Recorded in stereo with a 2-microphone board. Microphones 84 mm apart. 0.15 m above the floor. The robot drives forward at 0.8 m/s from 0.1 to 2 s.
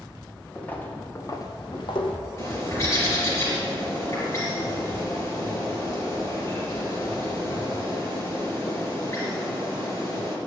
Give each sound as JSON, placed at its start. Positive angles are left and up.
{"t": 0.6, "sound": "footsteps", "side_deg": 15, "distance_m": 2.0}
{"t": 2.4, "sound": "a bird", "side_deg": 35, "distance_m": 3.5}